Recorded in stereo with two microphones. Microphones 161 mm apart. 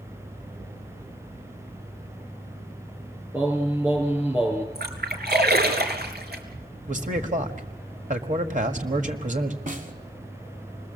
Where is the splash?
80° right, 3.5 m.